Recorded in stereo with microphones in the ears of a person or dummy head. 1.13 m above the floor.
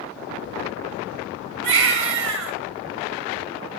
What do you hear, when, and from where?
1.6 s a baby crying: 70° right (ahead or behind), 2 m